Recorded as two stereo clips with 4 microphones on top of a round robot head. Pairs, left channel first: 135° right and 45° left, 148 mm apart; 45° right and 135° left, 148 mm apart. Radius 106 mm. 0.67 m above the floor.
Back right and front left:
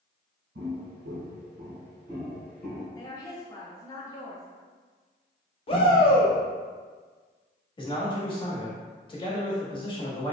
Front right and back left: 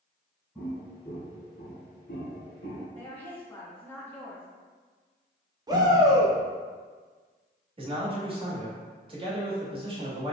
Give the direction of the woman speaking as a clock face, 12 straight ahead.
4 o'clock.